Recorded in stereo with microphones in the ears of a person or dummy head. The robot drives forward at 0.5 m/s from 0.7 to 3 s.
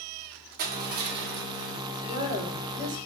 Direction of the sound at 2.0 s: 60° right (ahead or behind).